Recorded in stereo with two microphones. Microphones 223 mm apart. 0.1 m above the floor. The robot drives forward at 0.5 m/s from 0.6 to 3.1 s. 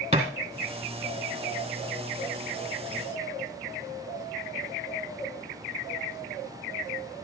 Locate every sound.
0.1 s a thud: 25° right (ahead or behind), 2.5 m